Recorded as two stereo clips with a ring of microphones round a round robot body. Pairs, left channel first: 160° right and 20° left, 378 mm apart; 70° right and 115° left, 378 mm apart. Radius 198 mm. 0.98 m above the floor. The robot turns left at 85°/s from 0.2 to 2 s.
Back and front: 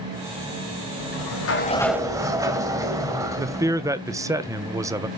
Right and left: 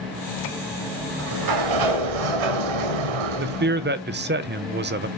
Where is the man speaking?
95° left, 0.9 m.